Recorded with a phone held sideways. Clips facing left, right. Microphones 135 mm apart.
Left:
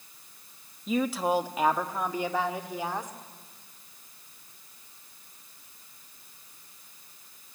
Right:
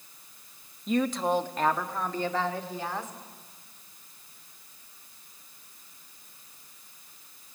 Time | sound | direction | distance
0.9 | a woman speaking | centre (ahead or behind) | 0.8 m